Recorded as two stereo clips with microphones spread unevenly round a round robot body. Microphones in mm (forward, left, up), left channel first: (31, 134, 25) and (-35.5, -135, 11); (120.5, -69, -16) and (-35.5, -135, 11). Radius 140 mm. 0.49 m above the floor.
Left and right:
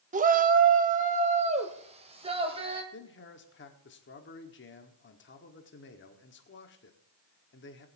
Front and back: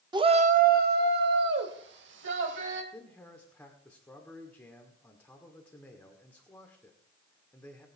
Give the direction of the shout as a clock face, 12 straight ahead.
3 o'clock.